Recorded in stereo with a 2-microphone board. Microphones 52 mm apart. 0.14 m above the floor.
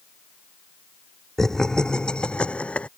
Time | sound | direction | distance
1.4 | laughter | 10° left (ahead or behind) | ?